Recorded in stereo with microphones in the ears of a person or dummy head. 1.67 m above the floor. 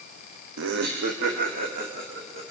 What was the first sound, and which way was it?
Laughter, 70° right (ahead or behind).